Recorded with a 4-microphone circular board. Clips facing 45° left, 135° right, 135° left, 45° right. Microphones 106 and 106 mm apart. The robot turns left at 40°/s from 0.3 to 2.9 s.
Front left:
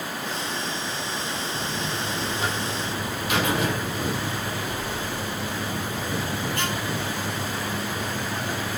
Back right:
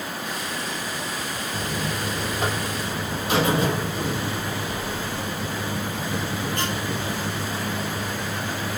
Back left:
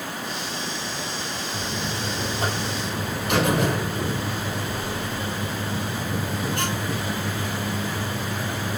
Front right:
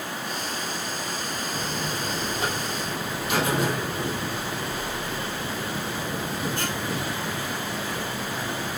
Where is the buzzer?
140° right, 1.9 m; by 8.8 s 165° left, 1.9 m.